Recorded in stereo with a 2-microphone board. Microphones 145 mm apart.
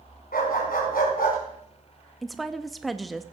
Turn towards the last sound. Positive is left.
turn(degrees=0)  # may be behind; listen again after turning